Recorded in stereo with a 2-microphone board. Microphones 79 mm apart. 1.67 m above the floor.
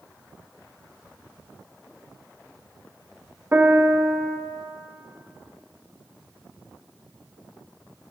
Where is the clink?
I don't hear a clink.